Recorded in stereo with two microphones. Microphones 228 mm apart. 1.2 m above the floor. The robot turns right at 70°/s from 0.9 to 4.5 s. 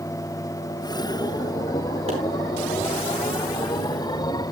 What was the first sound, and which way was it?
A pop, 25° right (ahead or behind).